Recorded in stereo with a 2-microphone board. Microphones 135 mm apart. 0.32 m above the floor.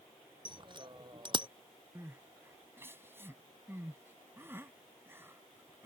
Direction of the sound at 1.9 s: 20° right (ahead or behind).